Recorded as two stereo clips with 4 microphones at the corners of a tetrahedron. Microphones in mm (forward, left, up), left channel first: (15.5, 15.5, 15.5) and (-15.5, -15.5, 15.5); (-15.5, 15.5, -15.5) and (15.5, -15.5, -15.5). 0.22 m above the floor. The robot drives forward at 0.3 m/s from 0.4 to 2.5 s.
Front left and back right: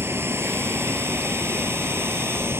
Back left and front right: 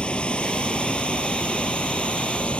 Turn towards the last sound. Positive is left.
turn(degrees=-160)